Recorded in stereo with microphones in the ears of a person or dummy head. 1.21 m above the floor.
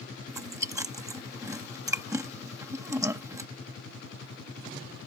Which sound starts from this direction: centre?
Chewing, at 0.3 s.